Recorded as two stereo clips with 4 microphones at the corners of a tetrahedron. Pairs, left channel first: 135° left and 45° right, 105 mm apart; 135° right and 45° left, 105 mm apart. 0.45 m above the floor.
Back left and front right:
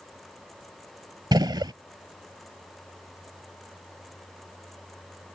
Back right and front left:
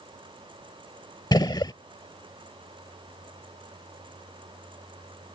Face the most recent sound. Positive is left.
turn(degrees=-90)